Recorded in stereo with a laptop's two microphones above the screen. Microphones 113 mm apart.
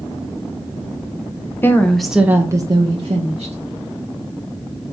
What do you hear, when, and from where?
1.6 s a woman speaking: 20° left (ahead or behind), 0.6 m; by 3.5 s 60° right (ahead or behind), 0.8 m